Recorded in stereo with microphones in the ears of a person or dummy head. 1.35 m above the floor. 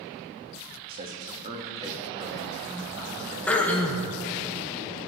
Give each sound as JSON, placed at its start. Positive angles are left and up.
{"t": 0.9, "sound": "a man speaking", "side_deg": -40, "distance_m": 1.6}
{"t": 3.5, "sound": "throat clearing", "side_deg": 5, "distance_m": 1.7}